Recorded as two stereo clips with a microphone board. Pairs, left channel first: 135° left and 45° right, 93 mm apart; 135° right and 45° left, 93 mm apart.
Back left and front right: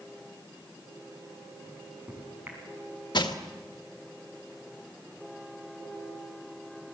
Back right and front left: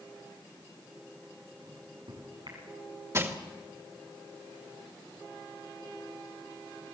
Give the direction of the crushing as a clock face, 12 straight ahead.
9 o'clock.